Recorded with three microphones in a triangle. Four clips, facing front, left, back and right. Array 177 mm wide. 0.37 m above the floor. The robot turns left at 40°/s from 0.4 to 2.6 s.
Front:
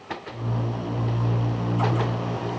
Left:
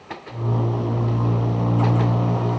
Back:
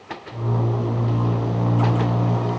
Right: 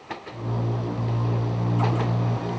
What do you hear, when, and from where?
Only background noise.